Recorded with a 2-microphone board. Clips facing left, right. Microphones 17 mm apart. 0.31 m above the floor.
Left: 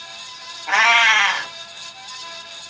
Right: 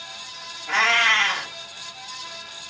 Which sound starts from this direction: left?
A cat meowing, at 0.7 s.